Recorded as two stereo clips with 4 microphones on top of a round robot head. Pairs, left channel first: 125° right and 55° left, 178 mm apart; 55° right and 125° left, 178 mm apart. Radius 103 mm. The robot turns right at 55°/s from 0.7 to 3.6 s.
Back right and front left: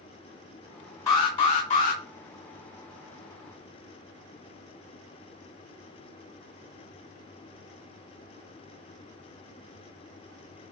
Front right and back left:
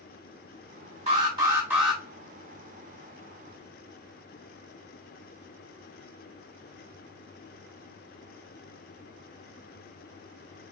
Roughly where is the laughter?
No laughter in this recording.